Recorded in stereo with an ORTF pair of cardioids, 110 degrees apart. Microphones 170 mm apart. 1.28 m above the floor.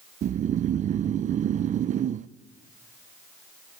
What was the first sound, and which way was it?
Snoring, 45° right.